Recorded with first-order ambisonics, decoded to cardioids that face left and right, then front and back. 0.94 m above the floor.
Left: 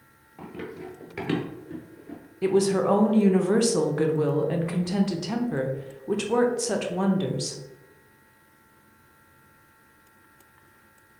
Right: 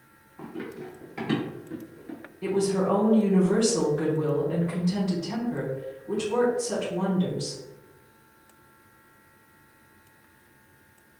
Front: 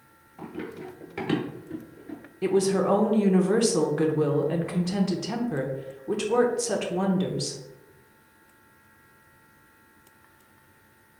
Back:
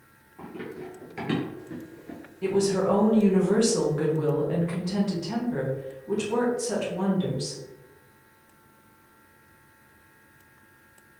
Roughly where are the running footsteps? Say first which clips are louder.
Even, front 1 dB; left.